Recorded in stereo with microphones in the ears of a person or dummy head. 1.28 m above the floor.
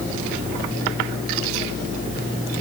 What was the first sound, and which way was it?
Only background noise.